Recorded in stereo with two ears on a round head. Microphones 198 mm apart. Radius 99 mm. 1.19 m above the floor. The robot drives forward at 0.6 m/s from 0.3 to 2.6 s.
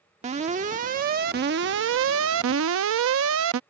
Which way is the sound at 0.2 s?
30° right (ahead or behind).